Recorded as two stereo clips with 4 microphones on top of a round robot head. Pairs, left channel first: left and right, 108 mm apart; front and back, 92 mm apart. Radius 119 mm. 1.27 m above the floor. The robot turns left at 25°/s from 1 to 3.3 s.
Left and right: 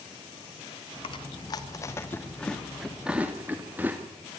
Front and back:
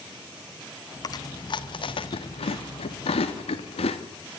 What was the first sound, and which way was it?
Chewing, 45° left.